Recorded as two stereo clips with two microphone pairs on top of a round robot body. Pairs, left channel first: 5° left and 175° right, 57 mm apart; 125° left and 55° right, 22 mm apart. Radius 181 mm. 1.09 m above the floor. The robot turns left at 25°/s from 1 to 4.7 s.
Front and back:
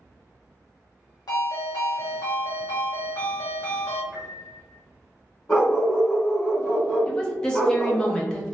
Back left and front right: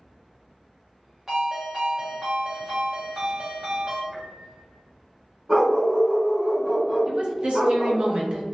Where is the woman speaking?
70° right, 0.9 m.